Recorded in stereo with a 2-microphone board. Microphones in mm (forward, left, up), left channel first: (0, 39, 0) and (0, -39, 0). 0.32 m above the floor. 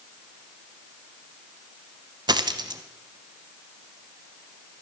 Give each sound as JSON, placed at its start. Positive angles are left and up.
{"t": 2.3, "sound": "a dropped coin", "side_deg": -65, "distance_m": 0.6}